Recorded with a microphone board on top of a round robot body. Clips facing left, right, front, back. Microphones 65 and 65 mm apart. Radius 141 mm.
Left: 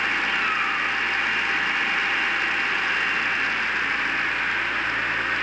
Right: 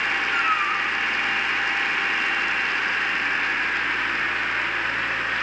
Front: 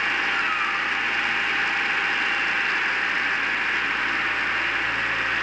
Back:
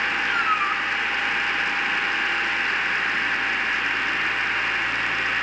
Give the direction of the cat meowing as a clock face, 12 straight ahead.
6 o'clock.